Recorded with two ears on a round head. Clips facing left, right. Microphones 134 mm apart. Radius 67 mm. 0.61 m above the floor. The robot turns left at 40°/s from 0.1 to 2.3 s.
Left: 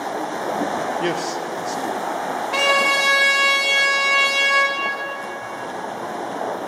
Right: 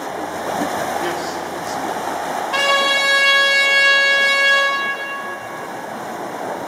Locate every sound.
1.0 s a man speaking: 30° left (ahead or behind), 0.7 m; by 2.4 s 5° right (ahead or behind), 0.7 m
2.5 s a trumpet: 10° left (ahead or behind), 1.9 m